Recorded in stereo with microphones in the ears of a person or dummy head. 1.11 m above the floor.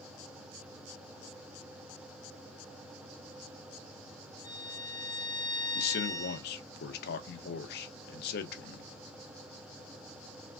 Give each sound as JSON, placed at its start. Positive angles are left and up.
{"t": 4.4, "sound": "a violin", "side_deg": 20, "distance_m": 1.6}
{"t": 5.8, "sound": "a man speaking", "side_deg": 55, "distance_m": 0.6}